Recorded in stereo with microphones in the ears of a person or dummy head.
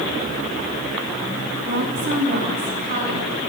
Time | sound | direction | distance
1.6 | a woman speaking | 50° right (ahead or behind) | 2.5 m